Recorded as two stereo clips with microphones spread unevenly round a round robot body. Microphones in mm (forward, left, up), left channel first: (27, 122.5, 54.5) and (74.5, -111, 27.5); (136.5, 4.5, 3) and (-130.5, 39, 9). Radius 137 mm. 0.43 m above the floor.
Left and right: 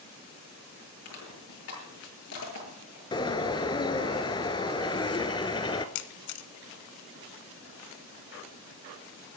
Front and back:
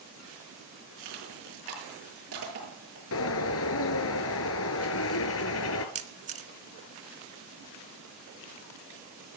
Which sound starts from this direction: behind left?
Crushing, at 1.1 s.